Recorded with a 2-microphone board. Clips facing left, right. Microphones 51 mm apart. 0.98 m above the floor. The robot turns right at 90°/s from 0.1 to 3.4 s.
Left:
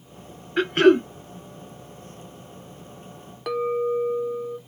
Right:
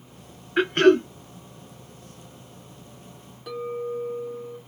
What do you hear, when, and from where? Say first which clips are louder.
0.6 s throat clearing: left 1 dB; 15° right, 0.6 m; by 1.1 s 30° left, 0.6 m
3.5 s a clink: left 7 dB; 70° left (ahead or behind), 0.6 m